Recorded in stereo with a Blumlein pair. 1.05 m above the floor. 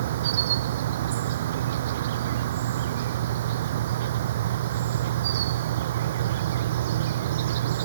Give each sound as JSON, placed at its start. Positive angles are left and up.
{"t": 0.0, "sound": "an insect", "azimuth_deg": -55}